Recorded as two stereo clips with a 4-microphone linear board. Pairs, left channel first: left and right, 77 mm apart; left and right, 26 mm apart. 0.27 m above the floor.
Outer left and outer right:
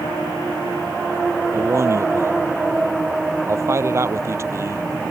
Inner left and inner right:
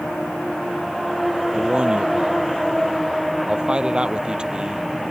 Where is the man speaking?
35° right (ahead or behind).